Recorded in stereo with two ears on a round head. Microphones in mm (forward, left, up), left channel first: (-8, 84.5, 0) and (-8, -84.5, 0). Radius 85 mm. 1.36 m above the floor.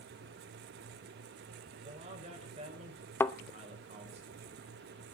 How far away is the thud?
About 0.6 m.